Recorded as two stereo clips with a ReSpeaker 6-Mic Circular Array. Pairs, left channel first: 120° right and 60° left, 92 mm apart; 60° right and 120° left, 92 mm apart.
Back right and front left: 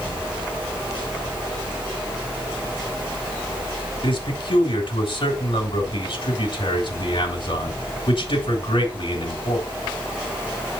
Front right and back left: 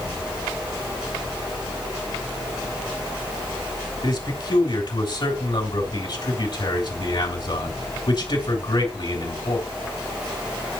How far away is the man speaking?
About 3 m.